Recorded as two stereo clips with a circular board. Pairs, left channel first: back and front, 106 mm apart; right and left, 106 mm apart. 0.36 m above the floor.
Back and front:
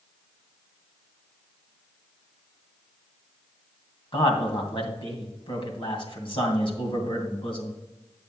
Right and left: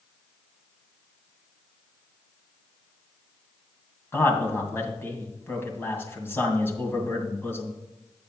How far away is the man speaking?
About 2 m.